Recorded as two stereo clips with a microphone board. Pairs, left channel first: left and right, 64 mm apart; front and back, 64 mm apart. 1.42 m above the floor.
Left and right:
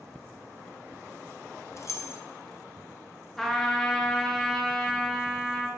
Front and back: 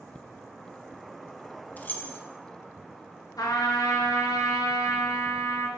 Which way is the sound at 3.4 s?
5° left.